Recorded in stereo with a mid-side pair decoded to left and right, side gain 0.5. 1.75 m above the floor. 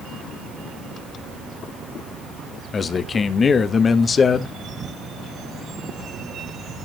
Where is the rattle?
I don't hear a rattle.